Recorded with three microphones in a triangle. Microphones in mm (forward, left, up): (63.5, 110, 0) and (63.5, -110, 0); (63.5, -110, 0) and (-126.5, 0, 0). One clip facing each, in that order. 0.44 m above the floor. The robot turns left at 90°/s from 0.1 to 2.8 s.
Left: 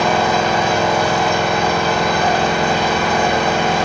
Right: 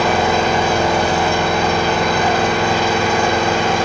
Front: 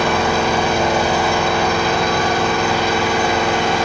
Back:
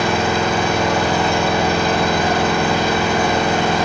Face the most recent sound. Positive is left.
turn(degrees=110)